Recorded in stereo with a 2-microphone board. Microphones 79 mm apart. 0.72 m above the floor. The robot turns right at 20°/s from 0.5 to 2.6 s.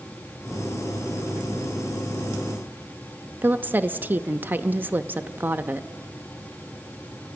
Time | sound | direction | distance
3.4 | a woman speaking | 25° right (ahead or behind) | 0.6 m